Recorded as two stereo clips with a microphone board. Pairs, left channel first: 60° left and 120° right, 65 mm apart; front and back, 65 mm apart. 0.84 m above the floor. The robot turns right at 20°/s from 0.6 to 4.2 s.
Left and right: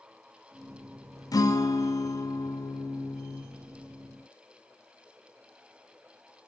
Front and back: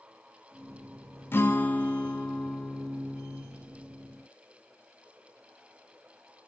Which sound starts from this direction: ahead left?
A guitar, at 1.3 s.